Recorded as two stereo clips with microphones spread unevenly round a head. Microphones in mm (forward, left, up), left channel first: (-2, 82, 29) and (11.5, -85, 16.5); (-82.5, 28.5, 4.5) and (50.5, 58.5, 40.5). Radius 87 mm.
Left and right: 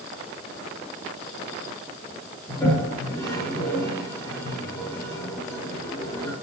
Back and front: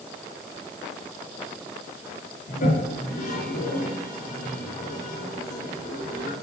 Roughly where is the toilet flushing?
Behind.